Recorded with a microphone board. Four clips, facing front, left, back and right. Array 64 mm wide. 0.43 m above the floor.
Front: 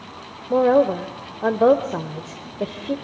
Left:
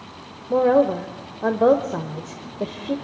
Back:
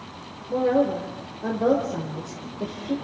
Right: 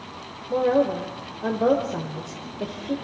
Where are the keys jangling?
I don't hear keys jangling.